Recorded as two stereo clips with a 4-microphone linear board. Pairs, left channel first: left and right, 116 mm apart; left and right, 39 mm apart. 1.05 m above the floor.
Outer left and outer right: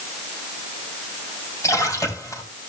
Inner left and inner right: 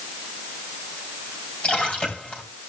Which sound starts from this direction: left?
A splash, at 1.6 s.